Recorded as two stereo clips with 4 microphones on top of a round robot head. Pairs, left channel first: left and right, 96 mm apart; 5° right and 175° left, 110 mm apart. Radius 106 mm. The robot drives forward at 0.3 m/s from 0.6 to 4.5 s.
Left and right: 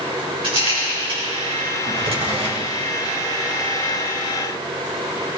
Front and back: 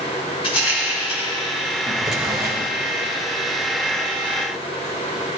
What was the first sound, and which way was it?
A rattle, 50° right.